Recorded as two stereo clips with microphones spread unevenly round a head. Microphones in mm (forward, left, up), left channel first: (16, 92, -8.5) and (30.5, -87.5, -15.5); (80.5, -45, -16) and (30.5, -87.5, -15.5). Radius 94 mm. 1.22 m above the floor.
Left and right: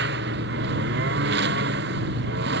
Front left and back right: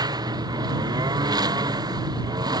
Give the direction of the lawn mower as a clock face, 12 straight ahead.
4 o'clock.